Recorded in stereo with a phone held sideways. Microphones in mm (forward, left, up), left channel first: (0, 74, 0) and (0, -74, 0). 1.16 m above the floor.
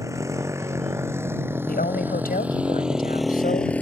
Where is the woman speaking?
85° left.